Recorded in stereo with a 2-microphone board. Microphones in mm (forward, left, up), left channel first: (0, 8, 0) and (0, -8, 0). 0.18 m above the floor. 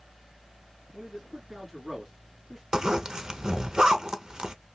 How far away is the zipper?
About 0.6 m.